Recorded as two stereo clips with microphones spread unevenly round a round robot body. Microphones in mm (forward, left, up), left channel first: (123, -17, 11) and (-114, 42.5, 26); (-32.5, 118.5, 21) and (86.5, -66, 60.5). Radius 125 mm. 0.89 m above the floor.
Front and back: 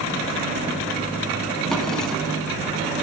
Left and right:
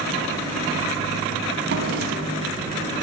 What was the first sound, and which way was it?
A drawer, 105° right.